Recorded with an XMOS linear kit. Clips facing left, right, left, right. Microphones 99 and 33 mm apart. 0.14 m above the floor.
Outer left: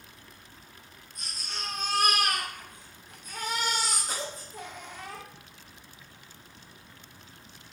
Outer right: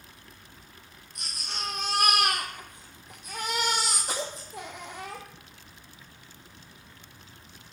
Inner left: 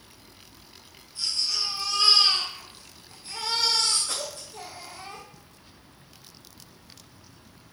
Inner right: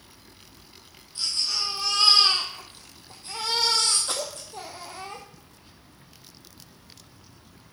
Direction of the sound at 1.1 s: 80° right.